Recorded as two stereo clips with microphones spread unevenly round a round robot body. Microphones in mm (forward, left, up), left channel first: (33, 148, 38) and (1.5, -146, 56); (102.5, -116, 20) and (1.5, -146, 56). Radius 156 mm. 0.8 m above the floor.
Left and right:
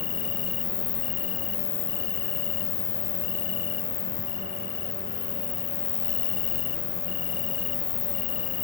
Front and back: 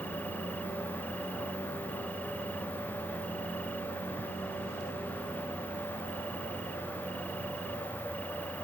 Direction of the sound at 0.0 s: 105° left.